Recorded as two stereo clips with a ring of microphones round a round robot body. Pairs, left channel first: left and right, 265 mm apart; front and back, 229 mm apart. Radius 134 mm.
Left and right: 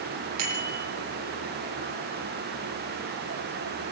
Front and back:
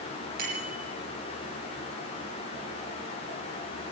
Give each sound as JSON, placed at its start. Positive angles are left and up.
{"t": 0.4, "sound": "a bicycle bell", "azimuth_deg": -120, "distance_m": 8.0}